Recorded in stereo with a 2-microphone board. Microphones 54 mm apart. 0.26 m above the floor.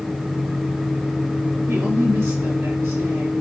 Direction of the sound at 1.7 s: 55° right (ahead or behind).